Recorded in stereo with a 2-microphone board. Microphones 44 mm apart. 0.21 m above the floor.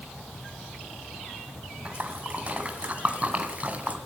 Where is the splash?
35° right (ahead or behind), 2 m.